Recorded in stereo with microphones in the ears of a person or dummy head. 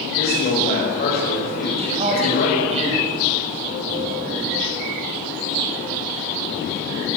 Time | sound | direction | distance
0.2 | a man speaking | 50° left (ahead or behind) | 6.5 m
1.8 | a man speaking | 35° right (ahead or behind) | 6.5 m